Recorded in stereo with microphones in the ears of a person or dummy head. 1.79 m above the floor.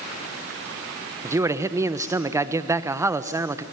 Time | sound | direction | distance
1.2 | a man speaking | 10° right (ahead or behind) | 1.1 m